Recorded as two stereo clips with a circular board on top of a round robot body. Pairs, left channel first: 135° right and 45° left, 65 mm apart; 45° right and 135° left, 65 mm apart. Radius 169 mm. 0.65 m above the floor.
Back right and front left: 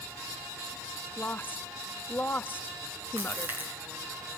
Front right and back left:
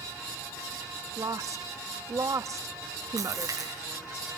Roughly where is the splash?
Left.